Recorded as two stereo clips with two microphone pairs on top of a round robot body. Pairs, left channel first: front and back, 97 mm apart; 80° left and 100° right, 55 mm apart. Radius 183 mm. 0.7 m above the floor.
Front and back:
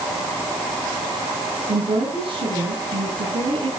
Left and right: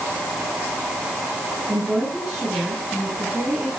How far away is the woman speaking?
About 8.5 m.